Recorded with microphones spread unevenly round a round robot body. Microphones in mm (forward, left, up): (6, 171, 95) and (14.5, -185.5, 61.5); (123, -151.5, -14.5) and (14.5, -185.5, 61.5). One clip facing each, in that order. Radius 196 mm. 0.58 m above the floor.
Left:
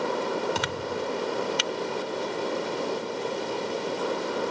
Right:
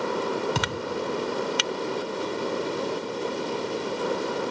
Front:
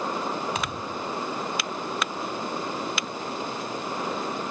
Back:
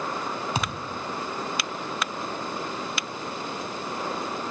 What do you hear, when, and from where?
0.6 s a thud: 105° right, 2 m